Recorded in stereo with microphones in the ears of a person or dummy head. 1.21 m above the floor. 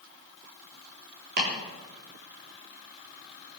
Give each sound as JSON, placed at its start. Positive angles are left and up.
{"t": 1.4, "sound": "chopping", "side_deg": -50, "distance_m": 3.5}